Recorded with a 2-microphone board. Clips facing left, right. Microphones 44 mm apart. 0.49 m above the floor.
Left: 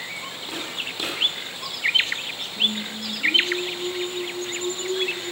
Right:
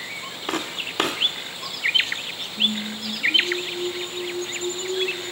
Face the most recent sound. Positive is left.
turn(degrees=75)  # may be behind; listen again after turning